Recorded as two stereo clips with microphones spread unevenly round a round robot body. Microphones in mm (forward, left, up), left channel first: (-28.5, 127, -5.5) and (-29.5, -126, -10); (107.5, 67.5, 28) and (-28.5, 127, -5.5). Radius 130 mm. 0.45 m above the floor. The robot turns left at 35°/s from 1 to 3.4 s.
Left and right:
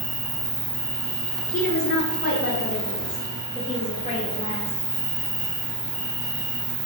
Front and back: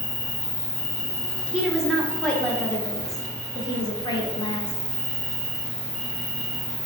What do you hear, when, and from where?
0.0 s an insect: 40° right, 1.1 m; by 6.9 s 125° right, 1.1 m
1.5 s a woman speaking: 105° left, 0.8 m; by 4.7 s 40° left, 0.8 m